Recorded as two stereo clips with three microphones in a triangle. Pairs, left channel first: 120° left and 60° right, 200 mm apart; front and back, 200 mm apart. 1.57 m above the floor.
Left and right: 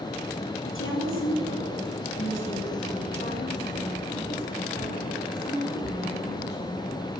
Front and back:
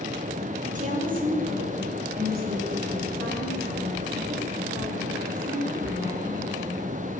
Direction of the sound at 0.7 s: 130° left.